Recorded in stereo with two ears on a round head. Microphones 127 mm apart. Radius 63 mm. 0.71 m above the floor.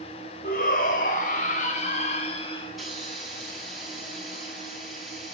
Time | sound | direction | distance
0.4 | a shout | 65° left (ahead or behind) | 3 m
2.6 | a hiss | centre (ahead or behind) | 6.5 m